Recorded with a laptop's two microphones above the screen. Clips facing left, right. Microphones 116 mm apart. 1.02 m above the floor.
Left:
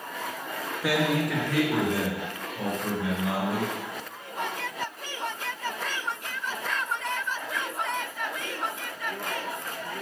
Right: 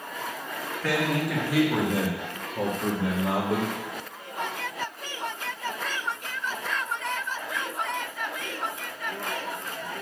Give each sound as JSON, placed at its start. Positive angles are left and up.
{"t": 0.8, "sound": "a man speaking", "side_deg": 10, "distance_m": 1.8}